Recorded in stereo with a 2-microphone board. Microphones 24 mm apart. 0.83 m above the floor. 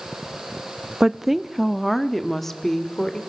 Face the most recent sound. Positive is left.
turn(degrees=15)  # may be behind; listen again after turning